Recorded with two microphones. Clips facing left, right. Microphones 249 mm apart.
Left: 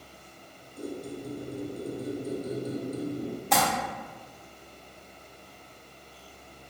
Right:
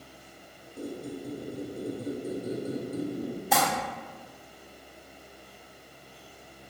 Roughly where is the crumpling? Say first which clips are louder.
Left 1 dB; centre.